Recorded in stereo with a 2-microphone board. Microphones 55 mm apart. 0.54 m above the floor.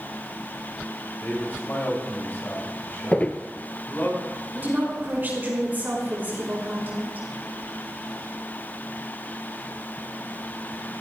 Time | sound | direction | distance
1.2 | a man speaking | 40° left (ahead or behind) | 3 m
3.1 | footsteps | 30° left (ahead or behind) | 0.5 m
4.5 | a woman speaking | 35° right (ahead or behind) | 5 m